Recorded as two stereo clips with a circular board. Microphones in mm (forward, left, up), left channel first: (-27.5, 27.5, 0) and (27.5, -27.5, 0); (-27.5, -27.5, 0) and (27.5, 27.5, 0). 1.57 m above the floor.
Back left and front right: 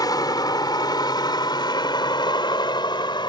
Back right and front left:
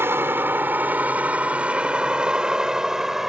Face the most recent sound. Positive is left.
turn(degrees=130)